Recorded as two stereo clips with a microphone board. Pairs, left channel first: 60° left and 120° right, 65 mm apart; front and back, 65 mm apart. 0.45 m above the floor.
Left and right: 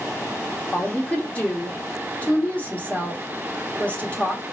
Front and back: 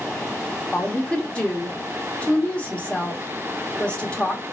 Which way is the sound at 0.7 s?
35° left.